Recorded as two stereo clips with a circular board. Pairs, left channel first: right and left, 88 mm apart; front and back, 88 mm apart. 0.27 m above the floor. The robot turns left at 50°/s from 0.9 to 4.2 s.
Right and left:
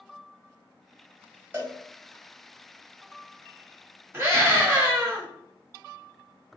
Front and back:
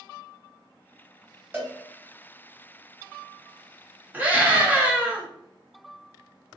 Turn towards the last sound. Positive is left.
turn(degrees=125)